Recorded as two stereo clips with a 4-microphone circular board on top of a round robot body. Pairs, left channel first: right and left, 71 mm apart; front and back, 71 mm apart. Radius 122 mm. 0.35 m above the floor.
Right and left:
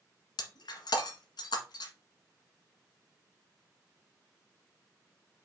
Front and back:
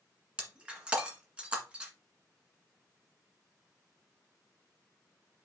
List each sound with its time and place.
0.4 s breaking glass: 105° right, 1.5 m